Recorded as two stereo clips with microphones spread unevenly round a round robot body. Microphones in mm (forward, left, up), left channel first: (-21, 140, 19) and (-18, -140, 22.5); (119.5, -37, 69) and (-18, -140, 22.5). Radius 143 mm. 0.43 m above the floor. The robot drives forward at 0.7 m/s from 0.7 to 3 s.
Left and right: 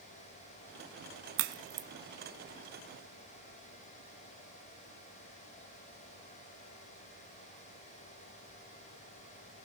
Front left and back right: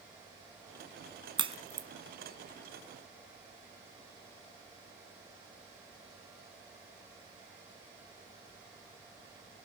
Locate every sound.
1.4 s a crack: 75° right, 0.7 m; by 1.9 s 105° right, 0.7 m